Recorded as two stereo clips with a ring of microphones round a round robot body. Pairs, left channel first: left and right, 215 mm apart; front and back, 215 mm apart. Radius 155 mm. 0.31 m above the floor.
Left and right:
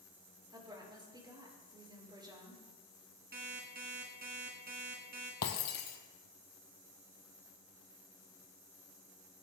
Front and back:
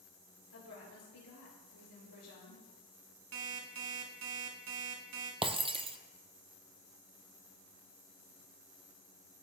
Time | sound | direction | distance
0.5 | a woman speaking | 20° right | 5.5 m
3.3 | an alarm clock | 150° right | 1.5 m
5.4 | breaking glass | 115° left | 1.4 m